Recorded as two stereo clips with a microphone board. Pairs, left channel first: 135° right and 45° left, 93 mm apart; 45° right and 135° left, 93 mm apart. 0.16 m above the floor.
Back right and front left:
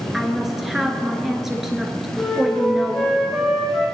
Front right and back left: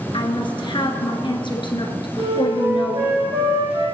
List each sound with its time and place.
0.1 s a woman speaking: 40° right, 2.5 m
2.2 s a flute: 140° left, 4.5 m